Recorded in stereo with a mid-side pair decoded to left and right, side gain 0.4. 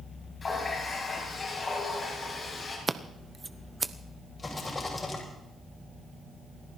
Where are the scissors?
25° right, 0.9 m.